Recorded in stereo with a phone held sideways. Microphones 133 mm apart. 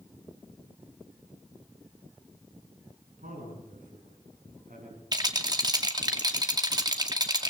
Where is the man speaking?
85° right, 9 m.